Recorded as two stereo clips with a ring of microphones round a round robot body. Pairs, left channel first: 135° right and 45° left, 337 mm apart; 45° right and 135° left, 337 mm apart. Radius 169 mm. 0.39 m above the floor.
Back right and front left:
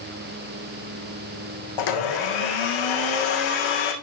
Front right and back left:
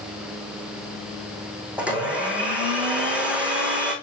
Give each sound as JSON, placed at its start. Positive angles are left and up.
{"t": 1.8, "sound": "a blender", "azimuth_deg": -140, "distance_m": 3.5}